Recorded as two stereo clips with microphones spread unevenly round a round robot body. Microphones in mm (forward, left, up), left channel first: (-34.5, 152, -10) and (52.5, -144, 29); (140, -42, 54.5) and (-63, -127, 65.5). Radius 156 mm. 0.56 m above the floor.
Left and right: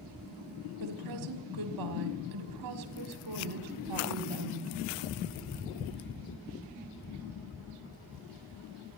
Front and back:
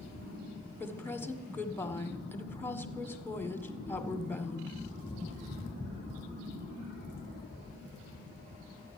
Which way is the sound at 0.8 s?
55° right.